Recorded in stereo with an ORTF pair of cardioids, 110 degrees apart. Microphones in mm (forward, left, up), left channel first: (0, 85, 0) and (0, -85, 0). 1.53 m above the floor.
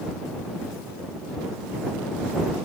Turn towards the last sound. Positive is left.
No sound to turn to.